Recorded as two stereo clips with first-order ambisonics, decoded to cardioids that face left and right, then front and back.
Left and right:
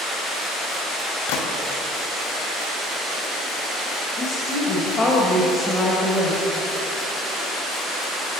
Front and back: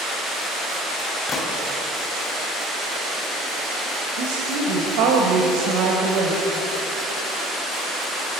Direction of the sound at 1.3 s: 70° left.